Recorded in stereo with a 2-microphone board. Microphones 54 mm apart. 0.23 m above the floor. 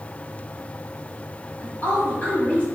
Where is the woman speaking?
30° left (ahead or behind), 1.5 m.